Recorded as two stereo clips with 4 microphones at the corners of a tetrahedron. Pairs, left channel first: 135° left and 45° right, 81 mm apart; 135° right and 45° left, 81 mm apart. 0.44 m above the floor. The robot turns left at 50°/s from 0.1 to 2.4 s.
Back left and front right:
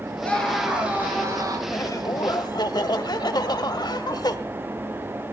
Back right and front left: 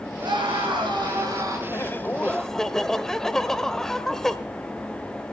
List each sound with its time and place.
0.2 s a scream: 65° left, 8 m; by 1.6 s 5° right, 8 m
1.7 s laughter: 175° left, 1.9 m; by 4.4 s 140° left, 1.9 m